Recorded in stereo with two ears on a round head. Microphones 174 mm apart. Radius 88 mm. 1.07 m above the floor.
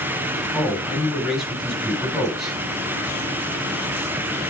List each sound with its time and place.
0.5 s a man speaking: centre (ahead or behind), 5 m